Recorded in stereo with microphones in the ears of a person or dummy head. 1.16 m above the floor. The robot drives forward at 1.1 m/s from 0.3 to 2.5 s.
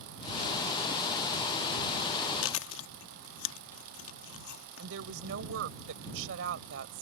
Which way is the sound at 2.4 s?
80° left.